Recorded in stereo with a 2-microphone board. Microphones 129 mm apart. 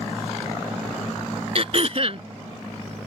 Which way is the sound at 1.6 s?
50° right (ahead or behind).